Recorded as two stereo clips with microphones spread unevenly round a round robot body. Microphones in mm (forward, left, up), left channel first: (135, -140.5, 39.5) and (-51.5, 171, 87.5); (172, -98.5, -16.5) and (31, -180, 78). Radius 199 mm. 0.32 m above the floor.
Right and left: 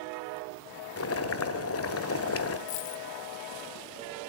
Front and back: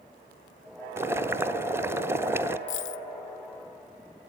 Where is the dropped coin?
5° left, 0.5 m.